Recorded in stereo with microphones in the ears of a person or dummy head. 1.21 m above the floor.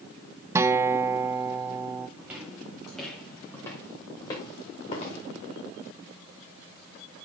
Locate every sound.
0.6 s a guitar: 10° right (ahead or behind), 0.6 m
2.2 s footsteps: 10° right (ahead or behind), 3 m; by 5.2 s 40° left (ahead or behind), 3.5 m